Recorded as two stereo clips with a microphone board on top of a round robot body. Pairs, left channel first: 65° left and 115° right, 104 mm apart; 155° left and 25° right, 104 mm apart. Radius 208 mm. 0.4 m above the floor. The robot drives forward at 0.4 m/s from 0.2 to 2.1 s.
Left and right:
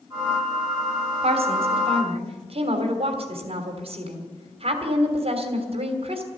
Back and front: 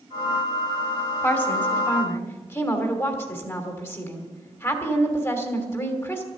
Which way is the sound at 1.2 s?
135° right.